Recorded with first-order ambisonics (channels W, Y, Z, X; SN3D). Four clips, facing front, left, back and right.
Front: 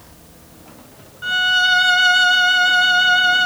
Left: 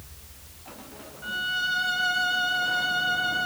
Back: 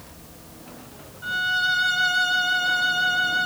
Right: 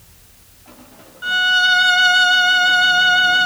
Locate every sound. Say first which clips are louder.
1.2 s a violin: right 13 dB, front 7 dB; 50° right, 0.6 m